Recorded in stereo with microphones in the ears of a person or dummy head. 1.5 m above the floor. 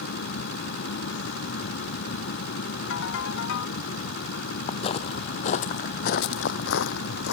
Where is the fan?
60° left (ahead or behind).